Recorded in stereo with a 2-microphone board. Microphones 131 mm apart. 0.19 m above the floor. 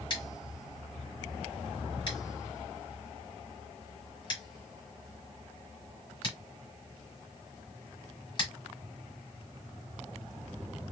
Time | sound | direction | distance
0.1 | scissors | 35° left (ahead or behind) | 2.0 m